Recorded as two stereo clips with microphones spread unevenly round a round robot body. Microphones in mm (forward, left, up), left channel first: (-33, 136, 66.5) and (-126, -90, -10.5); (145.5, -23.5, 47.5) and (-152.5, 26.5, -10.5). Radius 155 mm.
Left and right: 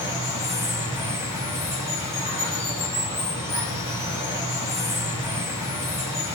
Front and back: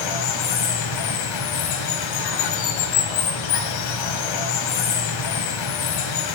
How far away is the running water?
About 1.5 m.